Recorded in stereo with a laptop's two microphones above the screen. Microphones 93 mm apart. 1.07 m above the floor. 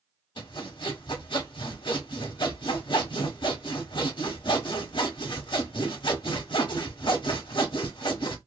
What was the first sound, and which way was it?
Sawing, 60° left (ahead or behind).